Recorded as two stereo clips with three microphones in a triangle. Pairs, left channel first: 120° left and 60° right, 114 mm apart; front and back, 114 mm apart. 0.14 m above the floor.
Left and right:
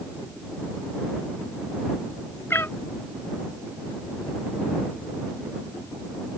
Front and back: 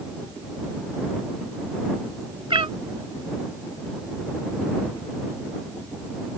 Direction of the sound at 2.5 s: 175° right.